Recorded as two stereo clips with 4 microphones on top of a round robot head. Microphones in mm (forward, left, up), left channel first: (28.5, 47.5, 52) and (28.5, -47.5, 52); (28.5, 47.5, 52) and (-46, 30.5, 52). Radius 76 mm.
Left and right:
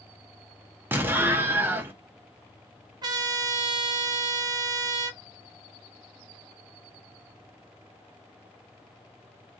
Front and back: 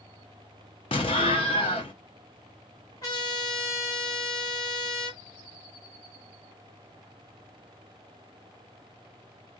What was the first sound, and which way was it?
An explosion, 25° right.